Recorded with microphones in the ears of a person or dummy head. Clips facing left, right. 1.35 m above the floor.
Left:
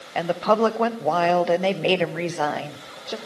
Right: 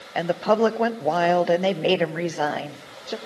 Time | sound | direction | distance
0.1 | a woman speaking | 5° right (ahead or behind) | 0.9 m